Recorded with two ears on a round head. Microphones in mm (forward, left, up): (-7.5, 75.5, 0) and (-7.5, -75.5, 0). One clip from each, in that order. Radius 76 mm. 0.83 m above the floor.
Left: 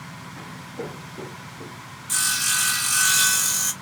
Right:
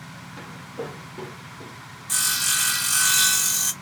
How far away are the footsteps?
About 1.9 m.